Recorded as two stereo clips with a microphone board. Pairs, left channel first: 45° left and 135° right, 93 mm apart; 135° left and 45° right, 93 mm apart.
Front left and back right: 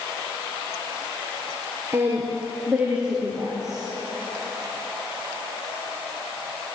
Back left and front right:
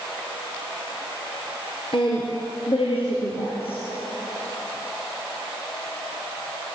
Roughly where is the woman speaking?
Behind.